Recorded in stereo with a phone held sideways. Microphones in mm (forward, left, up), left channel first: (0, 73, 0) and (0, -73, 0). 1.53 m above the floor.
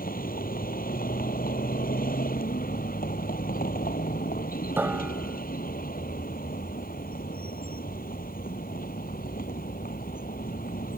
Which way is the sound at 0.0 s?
90° left.